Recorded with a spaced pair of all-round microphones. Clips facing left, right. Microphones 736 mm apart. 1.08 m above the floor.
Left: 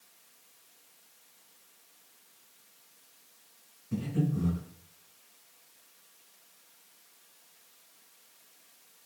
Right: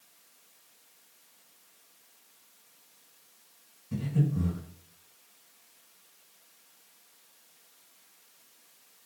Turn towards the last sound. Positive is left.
turn(degrees=-30)  # may be behind; listen again after turning